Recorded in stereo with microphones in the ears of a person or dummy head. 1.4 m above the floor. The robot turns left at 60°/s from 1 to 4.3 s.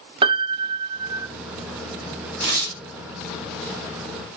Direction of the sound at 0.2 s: 35° right (ahead or behind).